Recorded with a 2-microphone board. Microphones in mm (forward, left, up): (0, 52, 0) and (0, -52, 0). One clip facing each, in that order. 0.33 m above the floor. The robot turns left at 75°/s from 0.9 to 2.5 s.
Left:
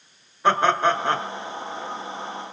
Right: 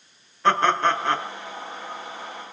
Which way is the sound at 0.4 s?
15° left (ahead or behind).